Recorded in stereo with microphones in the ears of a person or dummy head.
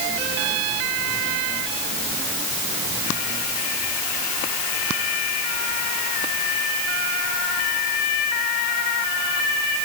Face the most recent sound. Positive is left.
No sound to turn to.